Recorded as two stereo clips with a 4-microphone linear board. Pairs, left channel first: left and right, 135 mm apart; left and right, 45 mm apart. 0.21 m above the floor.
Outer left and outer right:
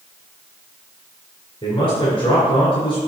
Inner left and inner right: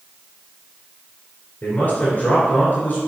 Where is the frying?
I don't hear frying.